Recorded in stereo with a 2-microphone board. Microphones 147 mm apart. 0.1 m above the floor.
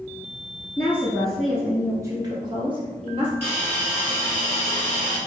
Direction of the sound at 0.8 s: 20° left (ahead or behind).